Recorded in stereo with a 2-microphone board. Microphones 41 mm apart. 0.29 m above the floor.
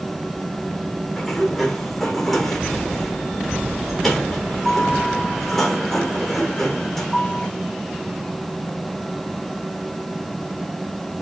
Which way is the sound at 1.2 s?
Centre (ahead or behind).